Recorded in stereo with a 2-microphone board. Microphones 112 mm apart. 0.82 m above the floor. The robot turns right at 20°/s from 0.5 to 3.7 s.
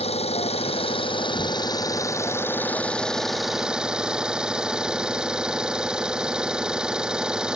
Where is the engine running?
125° left; by 7.6 s 175° right.